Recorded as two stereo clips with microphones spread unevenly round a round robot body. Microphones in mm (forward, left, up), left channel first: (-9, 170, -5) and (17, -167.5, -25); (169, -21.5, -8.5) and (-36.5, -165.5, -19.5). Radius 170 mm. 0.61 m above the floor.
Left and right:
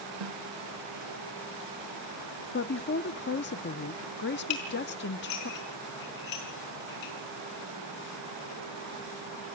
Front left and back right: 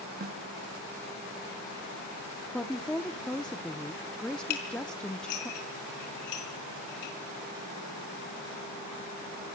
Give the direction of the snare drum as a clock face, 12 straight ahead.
3 o'clock.